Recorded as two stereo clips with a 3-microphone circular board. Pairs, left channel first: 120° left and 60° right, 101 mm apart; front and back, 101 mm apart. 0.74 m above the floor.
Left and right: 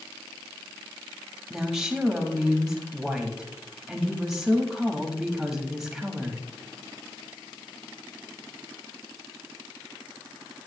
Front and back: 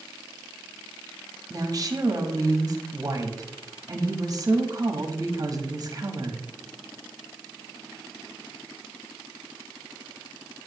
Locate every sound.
1.5 s a woman speaking: 145° right, 1.3 m